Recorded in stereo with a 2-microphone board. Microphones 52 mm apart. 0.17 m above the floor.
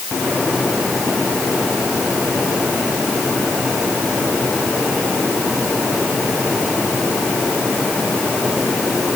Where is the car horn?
I don't hear a car horn.